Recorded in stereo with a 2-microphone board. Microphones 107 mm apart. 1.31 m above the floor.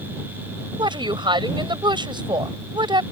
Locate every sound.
0.8 s a woman speaking: 50° right (ahead or behind)